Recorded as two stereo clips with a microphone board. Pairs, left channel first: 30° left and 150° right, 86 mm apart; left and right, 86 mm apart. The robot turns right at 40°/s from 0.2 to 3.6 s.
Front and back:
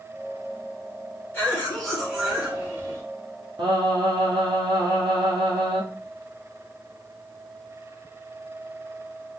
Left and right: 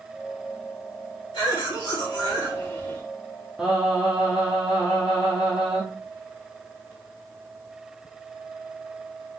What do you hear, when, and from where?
1.3 s a cough: 95° left, 3.5 m; by 3.0 s 165° left, 3.5 m
3.6 s singing: 175° right, 1.8 m